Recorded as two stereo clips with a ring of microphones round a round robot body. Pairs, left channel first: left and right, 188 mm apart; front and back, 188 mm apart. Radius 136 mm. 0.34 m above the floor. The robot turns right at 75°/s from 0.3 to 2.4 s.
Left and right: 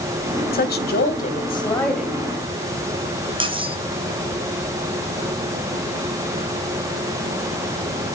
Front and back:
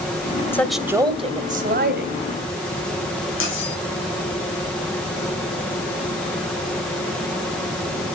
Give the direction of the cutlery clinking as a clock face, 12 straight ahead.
1 o'clock.